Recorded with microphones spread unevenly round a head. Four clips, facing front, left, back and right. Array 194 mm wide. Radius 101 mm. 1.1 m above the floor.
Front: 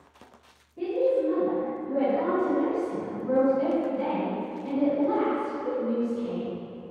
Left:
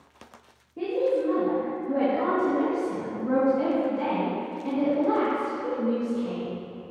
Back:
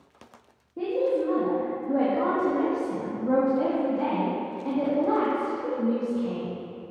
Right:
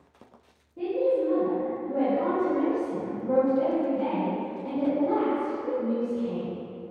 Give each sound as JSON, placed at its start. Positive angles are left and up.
{"t": 0.8, "sound": "a woman speaking", "azimuth_deg": 150, "distance_m": 2.0}